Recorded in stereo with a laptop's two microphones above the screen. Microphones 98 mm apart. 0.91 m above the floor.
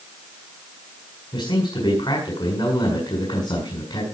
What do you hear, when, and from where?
1.3 s a man speaking: 55° left (ahead or behind), 7 m